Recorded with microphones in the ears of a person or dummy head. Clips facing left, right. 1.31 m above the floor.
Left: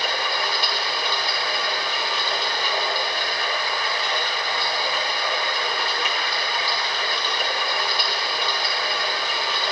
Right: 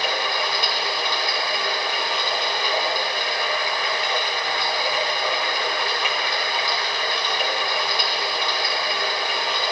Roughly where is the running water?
Centre.